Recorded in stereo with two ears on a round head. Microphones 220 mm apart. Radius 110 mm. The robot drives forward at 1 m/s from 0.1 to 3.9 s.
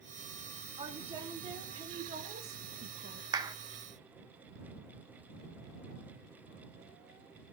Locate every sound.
0.8 s a woman speaking: 15° right (ahead or behind), 4.5 m; by 3.2 s 40° right (ahead or behind), 2 m
3.3 s a clap: 15° right (ahead or behind), 1.4 m